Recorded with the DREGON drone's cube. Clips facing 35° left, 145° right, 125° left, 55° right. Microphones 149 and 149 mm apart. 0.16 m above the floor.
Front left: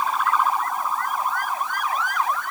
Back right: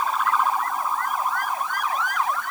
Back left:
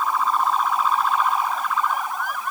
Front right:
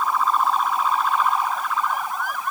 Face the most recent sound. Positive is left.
No sound to turn to.